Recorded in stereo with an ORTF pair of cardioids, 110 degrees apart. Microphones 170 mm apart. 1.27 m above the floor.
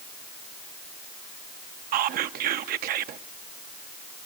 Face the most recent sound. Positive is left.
turn(degrees=-60)